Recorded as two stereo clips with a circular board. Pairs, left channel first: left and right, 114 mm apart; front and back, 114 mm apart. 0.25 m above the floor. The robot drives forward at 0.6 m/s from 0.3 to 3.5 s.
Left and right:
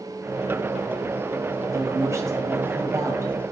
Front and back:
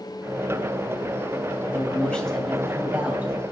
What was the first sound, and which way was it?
A man speaking, 60° right.